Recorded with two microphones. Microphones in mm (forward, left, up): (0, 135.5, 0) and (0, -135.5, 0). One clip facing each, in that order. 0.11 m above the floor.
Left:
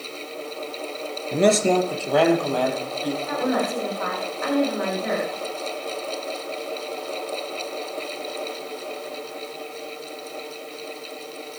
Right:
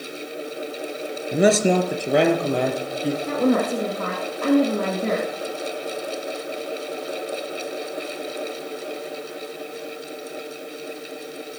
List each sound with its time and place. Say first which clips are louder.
1.3 s a man speaking: right 1 dB; 5° right (ahead or behind), 1.5 m; by 3.2 s 25° right (ahead or behind), 3.5 m
3.3 s a woman speaking: right 6 dB; 50° right (ahead or behind), 6 m